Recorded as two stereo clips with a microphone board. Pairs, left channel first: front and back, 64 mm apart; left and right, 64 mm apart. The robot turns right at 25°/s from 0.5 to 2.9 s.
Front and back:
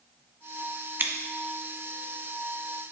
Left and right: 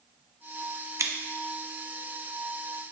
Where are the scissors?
125° right, 0.8 m; by 1.1 s 120° right, 0.8 m.